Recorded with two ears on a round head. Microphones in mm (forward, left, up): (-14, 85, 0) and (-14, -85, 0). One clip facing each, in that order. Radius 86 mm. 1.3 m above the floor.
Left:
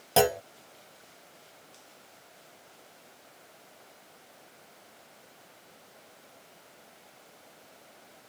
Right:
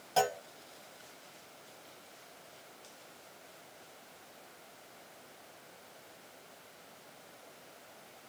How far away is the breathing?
I don't hear breathing.